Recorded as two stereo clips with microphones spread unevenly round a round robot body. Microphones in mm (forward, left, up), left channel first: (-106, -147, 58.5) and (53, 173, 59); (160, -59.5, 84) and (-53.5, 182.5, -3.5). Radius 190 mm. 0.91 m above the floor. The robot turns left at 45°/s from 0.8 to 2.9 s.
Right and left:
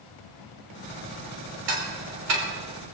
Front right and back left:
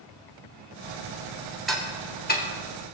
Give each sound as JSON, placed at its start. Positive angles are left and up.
{"t": 1.7, "sound": "ticking", "azimuth_deg": 45, "distance_m": 3.0}